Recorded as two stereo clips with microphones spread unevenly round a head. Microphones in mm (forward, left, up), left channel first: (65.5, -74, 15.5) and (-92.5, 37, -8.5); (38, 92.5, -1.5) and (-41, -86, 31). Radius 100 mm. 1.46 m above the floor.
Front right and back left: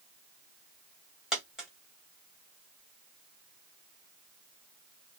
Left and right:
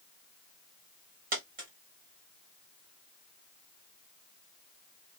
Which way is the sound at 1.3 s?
125° right.